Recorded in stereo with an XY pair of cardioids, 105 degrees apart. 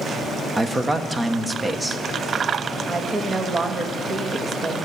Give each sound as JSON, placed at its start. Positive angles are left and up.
{"t": 0.6, "sound": "a man speaking", "azimuth_deg": -25, "distance_m": 1.2}
{"t": 2.9, "sound": "a woman speaking", "azimuth_deg": -40, "distance_m": 1.9}